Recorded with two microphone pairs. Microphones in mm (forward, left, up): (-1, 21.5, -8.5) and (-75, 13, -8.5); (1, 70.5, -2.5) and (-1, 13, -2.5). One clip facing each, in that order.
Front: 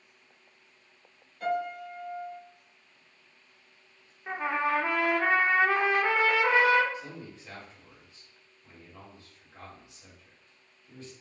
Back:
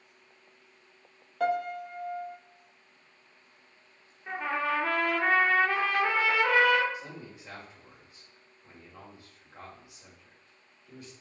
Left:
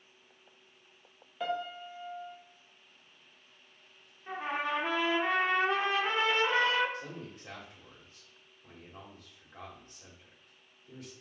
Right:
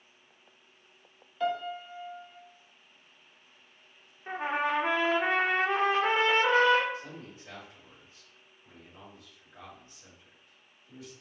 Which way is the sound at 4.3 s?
65° right.